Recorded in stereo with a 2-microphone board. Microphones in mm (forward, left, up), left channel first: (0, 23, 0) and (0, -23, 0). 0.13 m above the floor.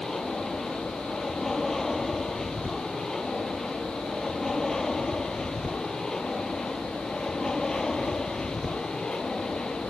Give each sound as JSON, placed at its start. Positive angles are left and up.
{"t": 0.0, "sound": "an aircraft", "side_deg": 5}